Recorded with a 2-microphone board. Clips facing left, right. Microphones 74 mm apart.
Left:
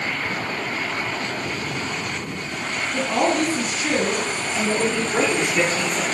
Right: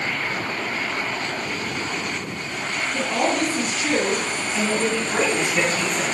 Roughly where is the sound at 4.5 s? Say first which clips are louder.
Left 1 dB; centre.